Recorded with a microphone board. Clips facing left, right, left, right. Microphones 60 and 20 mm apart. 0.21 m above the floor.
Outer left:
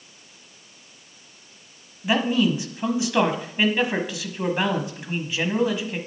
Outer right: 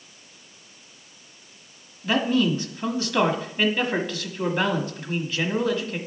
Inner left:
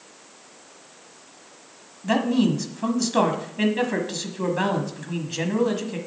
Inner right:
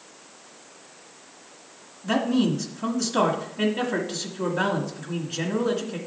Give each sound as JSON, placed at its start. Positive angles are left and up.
{"t": 2.0, "sound": "a man speaking", "side_deg": 15, "distance_m": 1.3}